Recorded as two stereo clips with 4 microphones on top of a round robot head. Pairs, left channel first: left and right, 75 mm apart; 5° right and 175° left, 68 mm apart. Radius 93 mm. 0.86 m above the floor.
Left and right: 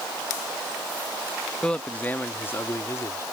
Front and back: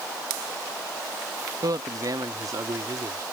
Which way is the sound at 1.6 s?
170° left.